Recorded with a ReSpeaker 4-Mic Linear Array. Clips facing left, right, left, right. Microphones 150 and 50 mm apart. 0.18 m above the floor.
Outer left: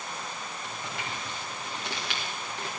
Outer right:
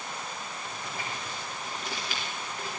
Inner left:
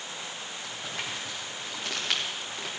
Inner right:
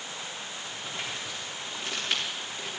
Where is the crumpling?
70° left (ahead or behind), 4.5 m.